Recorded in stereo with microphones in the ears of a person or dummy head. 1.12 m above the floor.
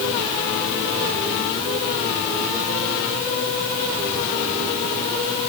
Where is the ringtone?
I don't hear a ringtone.